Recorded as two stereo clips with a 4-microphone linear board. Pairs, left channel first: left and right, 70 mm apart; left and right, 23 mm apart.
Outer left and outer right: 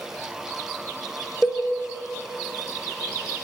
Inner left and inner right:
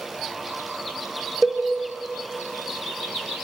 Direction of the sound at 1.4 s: 20° left (ahead or behind).